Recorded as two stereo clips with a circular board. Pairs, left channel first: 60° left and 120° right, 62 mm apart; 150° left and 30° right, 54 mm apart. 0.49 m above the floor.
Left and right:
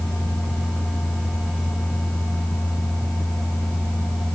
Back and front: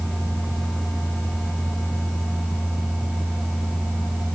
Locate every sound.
Only background noise.